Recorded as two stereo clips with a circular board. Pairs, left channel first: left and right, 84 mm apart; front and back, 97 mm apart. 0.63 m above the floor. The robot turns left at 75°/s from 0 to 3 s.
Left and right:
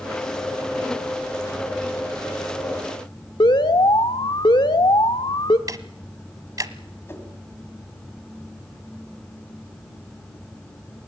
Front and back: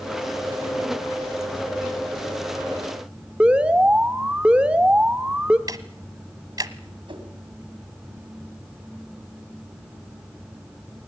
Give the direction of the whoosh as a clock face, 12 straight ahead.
7 o'clock.